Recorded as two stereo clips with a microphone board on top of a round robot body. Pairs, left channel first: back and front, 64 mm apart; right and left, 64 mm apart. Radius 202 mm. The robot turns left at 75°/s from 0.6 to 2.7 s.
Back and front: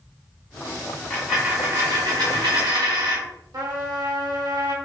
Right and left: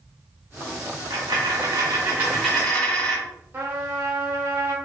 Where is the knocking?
No knocking in this recording.